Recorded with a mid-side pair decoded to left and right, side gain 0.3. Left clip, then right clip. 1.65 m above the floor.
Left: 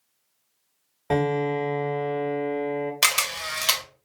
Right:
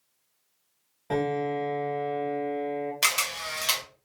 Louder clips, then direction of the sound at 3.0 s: Left 3 dB; 55° left.